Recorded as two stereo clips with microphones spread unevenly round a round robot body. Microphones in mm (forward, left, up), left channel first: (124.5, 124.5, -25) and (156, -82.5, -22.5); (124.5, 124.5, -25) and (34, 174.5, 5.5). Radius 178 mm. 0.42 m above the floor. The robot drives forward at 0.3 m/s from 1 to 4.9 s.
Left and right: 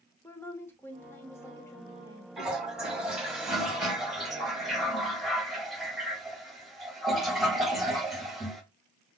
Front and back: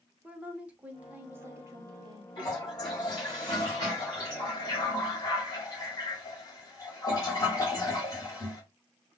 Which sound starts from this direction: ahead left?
A woman speaking, at 0.2 s.